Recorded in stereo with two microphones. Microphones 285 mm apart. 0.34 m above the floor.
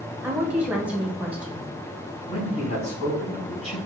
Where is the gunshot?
No gunshot in this recording.